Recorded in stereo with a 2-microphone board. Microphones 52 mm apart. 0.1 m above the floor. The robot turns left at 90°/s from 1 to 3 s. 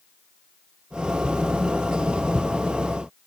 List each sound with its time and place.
Only background noise.